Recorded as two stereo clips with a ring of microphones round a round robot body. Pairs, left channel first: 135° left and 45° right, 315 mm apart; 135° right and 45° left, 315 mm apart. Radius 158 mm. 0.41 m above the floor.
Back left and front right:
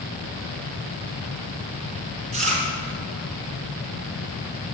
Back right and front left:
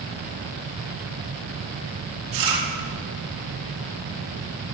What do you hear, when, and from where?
2.3 s chewing: 20° left, 4 m